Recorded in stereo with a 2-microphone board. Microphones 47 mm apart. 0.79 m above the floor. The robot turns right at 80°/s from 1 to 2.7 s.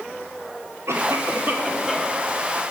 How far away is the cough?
About 2.0 m.